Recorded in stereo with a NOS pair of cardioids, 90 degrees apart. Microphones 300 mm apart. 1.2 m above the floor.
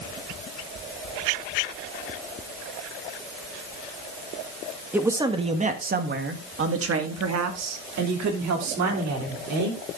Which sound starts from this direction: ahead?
A man speaking, at 4.9 s.